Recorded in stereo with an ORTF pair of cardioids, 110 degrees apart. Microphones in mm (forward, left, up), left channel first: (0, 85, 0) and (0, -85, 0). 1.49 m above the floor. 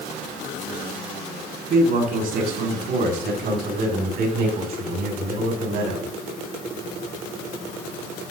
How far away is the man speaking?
About 4 m.